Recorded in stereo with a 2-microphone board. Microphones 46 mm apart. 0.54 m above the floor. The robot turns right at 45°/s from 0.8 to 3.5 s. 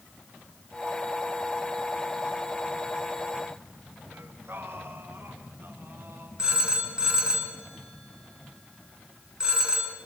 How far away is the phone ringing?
About 4.5 m.